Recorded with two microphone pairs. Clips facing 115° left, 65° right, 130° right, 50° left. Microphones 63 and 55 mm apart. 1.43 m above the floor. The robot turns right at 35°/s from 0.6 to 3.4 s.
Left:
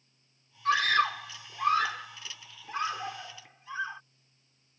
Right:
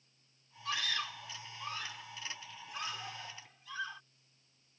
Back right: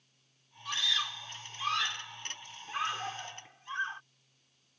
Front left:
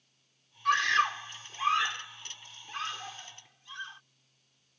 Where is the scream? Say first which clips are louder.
Left 13 dB, front left 10 dB; 80° left; by 4.0 s 175° left.